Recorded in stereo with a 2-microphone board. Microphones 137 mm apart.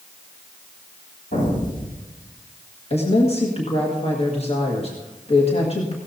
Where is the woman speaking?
50° left (ahead or behind), 1.8 m.